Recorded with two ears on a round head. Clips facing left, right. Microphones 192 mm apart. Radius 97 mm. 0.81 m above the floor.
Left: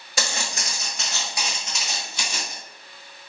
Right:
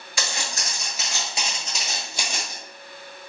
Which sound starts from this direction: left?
Footsteps, at 0.2 s.